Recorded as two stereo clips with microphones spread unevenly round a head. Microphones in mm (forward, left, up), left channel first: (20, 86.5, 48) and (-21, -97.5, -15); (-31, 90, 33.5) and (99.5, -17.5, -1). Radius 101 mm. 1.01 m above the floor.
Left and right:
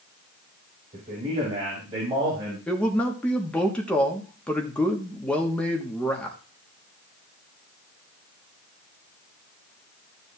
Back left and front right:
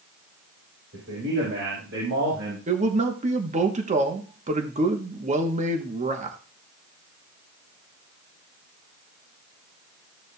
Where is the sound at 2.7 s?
20° right, 1.2 m.